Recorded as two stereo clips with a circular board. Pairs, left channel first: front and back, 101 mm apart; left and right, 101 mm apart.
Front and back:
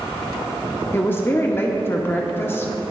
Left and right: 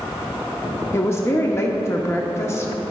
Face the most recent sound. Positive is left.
turn(degrees=50)